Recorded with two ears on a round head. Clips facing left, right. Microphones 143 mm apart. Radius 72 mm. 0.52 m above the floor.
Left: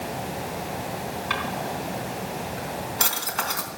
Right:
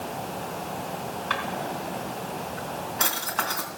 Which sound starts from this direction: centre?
A drawer, at 1.3 s.